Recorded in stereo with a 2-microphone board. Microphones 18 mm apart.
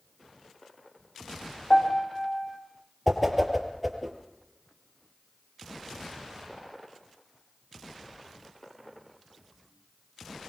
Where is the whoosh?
Centre (ahead or behind), 4 m.